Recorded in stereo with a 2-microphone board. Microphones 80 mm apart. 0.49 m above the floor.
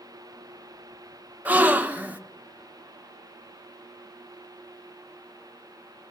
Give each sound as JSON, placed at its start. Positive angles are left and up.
{"t": 1.4, "sound": "a gasp", "side_deg": -20, "distance_m": 1.0}